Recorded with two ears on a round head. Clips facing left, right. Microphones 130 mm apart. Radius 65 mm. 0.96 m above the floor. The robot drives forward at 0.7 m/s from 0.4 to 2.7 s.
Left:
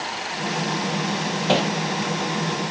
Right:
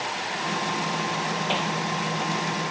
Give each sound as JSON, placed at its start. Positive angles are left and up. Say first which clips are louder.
{"t": 1.5, "sound": "hammering", "louder": "left 10 dB", "side_deg": 50}